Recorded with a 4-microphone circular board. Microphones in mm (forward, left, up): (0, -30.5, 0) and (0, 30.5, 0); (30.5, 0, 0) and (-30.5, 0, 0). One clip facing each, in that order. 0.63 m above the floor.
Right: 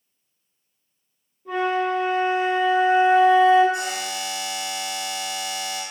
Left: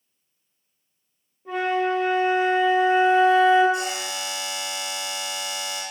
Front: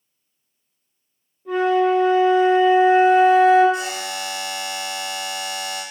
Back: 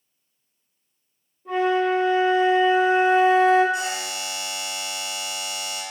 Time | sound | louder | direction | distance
1.4 | a flute | right 1 dB, front 3 dB | 85° left | 1.1 m
3.7 | a buzzer | even, front 1 dB | 95° right | 1.4 m